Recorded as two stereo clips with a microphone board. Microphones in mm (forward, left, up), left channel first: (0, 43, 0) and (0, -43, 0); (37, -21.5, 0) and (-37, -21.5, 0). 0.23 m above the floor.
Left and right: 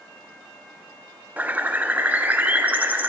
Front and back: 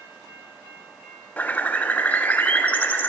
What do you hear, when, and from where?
1.4 s a bird: 40° right, 0.6 m